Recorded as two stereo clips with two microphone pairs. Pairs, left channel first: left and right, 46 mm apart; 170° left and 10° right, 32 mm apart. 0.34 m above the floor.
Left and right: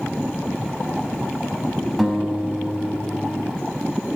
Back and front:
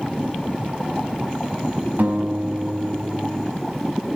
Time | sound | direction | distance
2.0 | a guitar | 5° right | 1.0 m